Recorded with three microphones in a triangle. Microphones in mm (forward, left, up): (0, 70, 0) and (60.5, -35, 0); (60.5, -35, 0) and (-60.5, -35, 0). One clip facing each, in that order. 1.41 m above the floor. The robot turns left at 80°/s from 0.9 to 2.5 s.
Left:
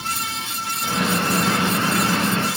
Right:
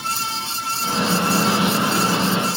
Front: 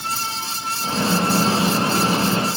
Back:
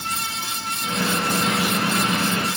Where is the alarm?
I don't hear an alarm.